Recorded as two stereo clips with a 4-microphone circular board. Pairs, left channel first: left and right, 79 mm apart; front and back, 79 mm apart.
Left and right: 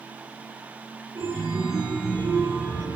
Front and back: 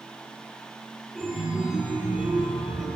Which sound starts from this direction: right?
A chime, at 1.1 s.